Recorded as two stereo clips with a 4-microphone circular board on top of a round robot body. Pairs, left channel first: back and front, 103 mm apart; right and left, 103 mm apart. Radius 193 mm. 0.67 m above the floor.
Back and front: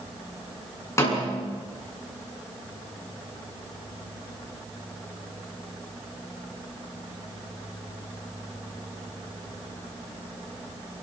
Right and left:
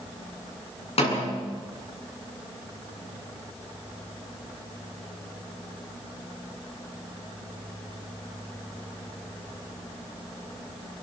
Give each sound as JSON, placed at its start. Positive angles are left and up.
{"t": 1.0, "sound": "a snare drum", "azimuth_deg": -115, "distance_m": 8.0}